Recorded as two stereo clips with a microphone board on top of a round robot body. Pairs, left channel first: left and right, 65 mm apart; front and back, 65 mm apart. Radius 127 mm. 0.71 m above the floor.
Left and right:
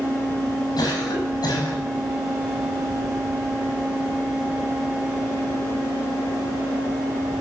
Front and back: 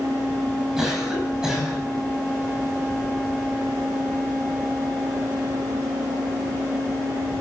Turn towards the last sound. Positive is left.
turn(degrees=100)